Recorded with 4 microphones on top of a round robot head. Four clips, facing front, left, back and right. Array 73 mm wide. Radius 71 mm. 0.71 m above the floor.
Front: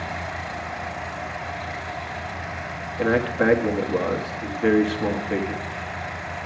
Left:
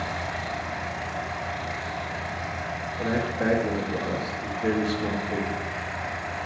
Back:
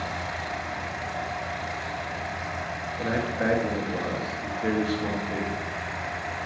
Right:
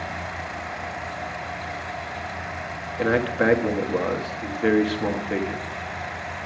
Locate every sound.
3.0 s a man speaking: 60° right, 1.5 m